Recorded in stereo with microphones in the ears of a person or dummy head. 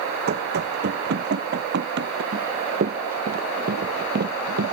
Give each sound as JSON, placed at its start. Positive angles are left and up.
{"t": 0.3, "sound": "running footsteps", "side_deg": -50}
{"t": 2.3, "sound": "running footsteps", "side_deg": -40}